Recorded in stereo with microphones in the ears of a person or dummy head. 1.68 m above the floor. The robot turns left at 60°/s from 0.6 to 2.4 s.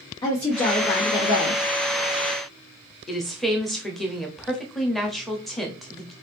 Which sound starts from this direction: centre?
A woman speaking, at 3.1 s.